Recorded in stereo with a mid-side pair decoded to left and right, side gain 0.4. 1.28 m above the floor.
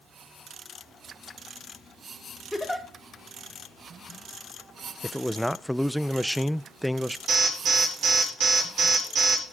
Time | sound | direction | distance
2.5 | a giggle | 5° left | 2.5 m
5.0 | a man speaking | straight ahead | 0.6 m
7.3 | an alarm | 55° right | 6.5 m